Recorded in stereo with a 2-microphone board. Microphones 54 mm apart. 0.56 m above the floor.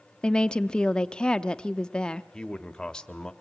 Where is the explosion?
No explosion in this recording.